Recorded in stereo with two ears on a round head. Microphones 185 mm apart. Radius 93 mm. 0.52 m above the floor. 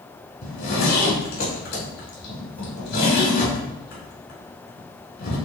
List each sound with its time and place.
0.4 s a zipper: 50° left (ahead or behind), 5 m